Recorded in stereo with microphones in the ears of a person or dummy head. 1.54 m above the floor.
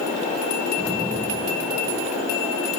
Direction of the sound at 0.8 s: 5° left (ahead or behind).